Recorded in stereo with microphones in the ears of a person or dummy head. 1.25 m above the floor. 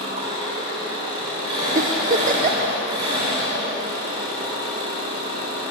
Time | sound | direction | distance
0.0 | an engine running | 30° right (ahead or behind) | 2.5 m
1.8 | a giggle | 40° right (ahead or behind) | 0.6 m